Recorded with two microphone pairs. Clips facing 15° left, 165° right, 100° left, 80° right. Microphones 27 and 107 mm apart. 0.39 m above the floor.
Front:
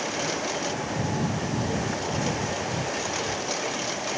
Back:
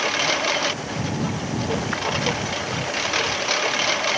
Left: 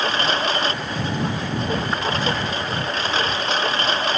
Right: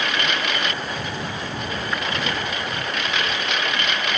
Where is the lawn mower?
155° left.